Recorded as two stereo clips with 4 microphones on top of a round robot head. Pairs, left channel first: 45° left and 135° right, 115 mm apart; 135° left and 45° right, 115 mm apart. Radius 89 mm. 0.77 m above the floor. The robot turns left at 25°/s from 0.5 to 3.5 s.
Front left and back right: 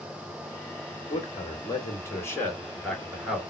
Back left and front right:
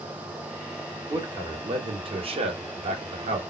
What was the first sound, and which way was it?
A man speaking, 10° left.